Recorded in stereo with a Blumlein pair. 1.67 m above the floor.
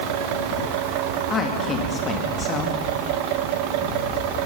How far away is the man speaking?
About 2.5 m.